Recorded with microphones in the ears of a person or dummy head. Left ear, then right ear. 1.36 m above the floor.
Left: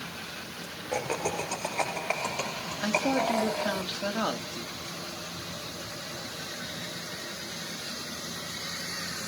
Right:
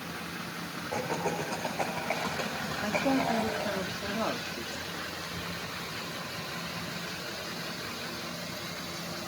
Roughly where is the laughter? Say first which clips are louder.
Left 2 dB; left.